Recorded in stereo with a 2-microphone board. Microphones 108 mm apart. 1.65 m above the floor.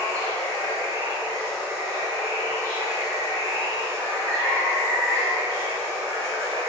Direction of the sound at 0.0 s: 30° right (ahead or behind).